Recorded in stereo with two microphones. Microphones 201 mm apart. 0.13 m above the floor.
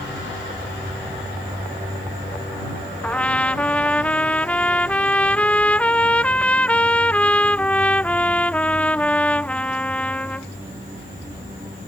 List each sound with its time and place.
3.0 s a trumpet: 5° left (ahead or behind)